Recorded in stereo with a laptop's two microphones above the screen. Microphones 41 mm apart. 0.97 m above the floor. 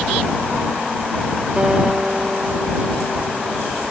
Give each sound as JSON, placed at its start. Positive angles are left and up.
{"t": 1.6, "sound": "a guitar", "side_deg": -20}